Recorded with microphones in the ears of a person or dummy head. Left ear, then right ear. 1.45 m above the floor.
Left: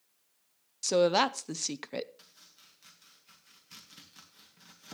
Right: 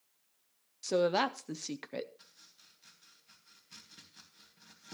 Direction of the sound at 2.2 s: 30° left (ahead or behind).